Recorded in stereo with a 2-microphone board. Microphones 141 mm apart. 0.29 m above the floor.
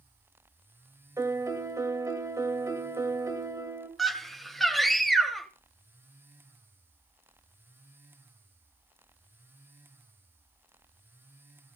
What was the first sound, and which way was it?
A piano, 20° right (ahead or behind).